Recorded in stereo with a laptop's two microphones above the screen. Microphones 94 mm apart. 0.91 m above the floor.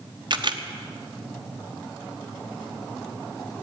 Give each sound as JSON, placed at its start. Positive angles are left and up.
{"t": 0.3, "sound": "a camera shutter", "side_deg": -50, "distance_m": 1.1}